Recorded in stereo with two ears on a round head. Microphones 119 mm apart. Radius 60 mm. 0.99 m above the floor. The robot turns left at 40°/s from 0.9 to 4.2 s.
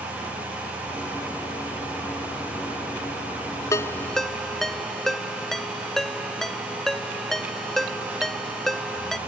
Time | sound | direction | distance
3.7 | a ringtone | 20° left (ahead or behind) | ?